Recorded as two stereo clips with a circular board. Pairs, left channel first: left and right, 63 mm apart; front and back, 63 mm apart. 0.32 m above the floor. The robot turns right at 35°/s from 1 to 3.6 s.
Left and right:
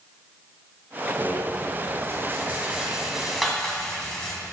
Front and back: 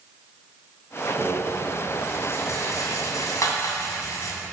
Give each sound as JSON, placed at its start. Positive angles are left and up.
{"t": 1.2, "sound": "a rattle", "azimuth_deg": -80, "distance_m": 2.5}